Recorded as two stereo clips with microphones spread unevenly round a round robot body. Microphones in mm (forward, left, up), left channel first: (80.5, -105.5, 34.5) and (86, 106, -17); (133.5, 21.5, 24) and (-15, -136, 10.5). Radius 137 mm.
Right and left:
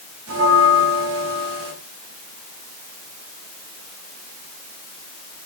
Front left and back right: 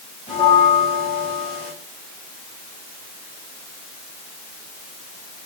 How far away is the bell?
About 4 m.